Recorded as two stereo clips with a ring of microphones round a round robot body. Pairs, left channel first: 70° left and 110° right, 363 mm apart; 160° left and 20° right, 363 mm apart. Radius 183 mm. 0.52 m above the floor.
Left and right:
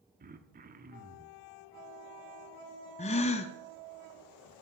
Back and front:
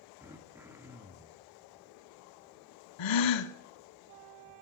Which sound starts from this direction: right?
Throat clearing, at 0.2 s.